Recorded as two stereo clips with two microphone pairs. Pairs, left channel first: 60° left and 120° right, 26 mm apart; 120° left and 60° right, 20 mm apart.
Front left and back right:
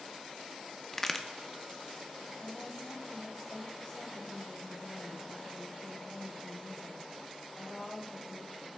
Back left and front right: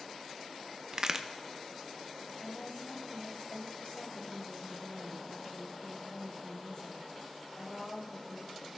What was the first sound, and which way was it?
A crack, 10° right.